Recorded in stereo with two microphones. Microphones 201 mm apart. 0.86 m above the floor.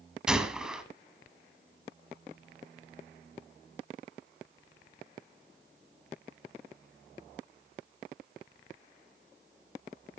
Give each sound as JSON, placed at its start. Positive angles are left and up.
{"t": 0.3, "sound": "a gunshot", "side_deg": -5, "distance_m": 1.2}